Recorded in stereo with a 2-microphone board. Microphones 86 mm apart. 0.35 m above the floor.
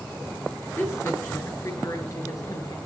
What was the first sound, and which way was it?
A woman speaking, 30° left (ahead or behind).